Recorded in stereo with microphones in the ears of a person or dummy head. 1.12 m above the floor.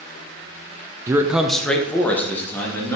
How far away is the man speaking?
About 0.6 m.